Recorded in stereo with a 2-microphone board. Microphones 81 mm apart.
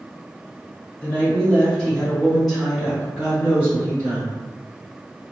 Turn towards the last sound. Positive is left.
turn(degrees=-20)  # may be behind; listen again after turning